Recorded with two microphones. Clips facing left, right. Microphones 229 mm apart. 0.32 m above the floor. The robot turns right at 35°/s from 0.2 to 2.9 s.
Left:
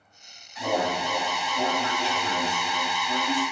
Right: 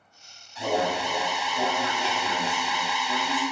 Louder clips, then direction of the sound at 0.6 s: Right 1 dB; 85° right.